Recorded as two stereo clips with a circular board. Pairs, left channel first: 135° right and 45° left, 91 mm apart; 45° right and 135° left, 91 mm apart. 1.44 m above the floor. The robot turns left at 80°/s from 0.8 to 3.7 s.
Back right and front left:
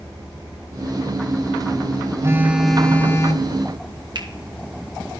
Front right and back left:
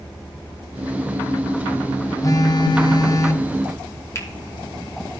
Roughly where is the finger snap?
Ahead.